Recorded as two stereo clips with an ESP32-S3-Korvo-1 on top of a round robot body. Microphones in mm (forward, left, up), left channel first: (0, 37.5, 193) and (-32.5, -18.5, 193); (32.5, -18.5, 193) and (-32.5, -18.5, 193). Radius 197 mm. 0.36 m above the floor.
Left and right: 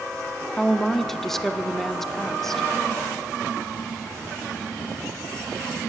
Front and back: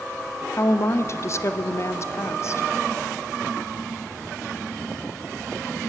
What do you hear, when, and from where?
0.6 s a woman speaking: 25° right, 1.5 m